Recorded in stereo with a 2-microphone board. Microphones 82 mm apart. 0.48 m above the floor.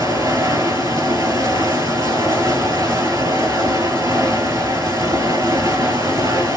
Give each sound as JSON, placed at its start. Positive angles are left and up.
{"t": 0.0, "sound": "running water", "side_deg": -50, "distance_m": 1.0}